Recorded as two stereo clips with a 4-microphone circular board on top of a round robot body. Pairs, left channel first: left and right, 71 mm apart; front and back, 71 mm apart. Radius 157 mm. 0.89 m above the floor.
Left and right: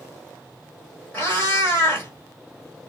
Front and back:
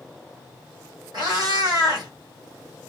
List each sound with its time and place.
1.1 s a cat meowing: 155° left, 1.5 m